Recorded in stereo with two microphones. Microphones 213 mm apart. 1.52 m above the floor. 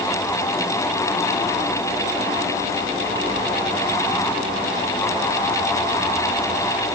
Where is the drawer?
No drawer in this recording.